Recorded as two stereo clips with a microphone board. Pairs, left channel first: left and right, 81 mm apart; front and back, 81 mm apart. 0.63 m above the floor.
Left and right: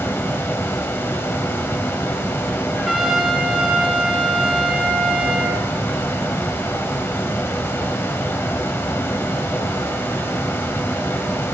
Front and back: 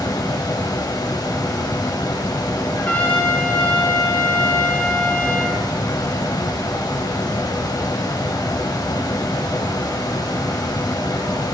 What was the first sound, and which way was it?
Running water, 30° left.